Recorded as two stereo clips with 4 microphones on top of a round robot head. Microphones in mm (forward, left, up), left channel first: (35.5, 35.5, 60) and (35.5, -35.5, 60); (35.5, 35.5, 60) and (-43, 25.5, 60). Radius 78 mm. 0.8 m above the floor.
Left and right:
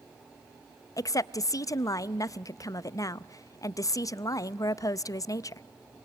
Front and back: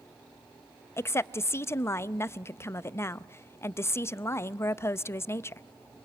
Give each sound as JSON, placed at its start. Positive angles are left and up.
{"t": 1.0, "sound": "a woman speaking", "azimuth_deg": 60, "distance_m": 0.6}